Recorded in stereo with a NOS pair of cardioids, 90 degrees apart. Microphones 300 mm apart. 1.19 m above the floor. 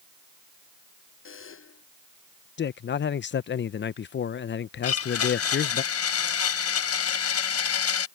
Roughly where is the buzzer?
Ahead left.